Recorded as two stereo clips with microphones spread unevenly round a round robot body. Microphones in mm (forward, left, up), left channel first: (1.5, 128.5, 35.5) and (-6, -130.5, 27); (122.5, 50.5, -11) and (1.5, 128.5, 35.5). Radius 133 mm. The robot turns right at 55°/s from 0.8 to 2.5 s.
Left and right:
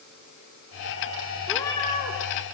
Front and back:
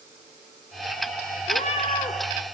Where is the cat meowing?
Straight ahead, 1.6 m; by 2.2 s 40° left, 1.6 m.